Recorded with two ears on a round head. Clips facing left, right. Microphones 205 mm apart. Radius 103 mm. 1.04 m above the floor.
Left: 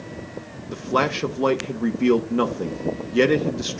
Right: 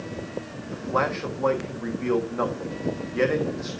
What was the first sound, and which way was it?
A man speaking, 45° left (ahead or behind).